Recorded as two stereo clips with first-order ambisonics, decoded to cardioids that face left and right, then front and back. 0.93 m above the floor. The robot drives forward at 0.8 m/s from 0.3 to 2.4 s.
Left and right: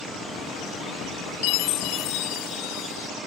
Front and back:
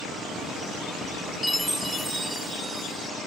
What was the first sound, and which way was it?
A chime, 85° left.